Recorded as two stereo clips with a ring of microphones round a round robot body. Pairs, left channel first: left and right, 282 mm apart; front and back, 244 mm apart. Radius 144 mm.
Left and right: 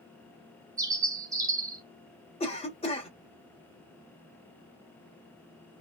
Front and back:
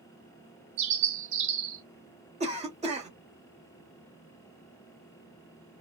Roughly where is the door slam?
No door slam in this recording.